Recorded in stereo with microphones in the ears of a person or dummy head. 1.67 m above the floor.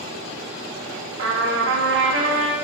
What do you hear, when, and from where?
1.2 s a trumpet: 75° right (ahead or behind), 1.2 m